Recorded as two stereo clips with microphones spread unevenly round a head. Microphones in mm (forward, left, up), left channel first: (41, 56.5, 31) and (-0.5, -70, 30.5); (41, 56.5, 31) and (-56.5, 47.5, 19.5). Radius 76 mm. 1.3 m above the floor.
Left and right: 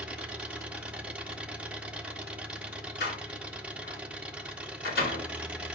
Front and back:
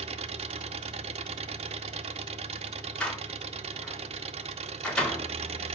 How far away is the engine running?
About 0.9 m.